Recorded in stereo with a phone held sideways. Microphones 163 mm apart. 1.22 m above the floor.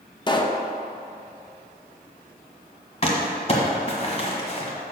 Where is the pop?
30° left (ahead or behind), 0.6 m.